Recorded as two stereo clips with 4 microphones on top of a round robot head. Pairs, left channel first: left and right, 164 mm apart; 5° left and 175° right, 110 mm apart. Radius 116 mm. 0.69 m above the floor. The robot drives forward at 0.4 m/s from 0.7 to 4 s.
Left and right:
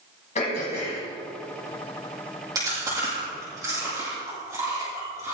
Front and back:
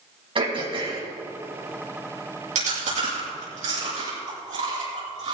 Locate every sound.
0.3 s throat clearing: 145° left, 4 m; by 1.0 s 150° left, 4 m
2.5 s chewing: 165° right, 6 m